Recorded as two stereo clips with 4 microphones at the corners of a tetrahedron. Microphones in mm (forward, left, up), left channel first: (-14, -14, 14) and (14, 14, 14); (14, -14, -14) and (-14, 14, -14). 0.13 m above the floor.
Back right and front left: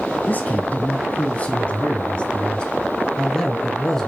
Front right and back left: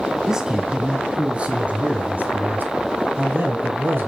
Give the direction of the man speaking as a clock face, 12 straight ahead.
5 o'clock.